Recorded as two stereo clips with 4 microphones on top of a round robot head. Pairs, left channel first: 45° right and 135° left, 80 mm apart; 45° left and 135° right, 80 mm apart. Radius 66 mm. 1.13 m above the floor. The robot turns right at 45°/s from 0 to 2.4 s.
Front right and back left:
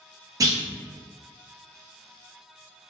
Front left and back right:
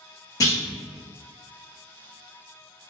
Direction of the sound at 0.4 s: 90° left.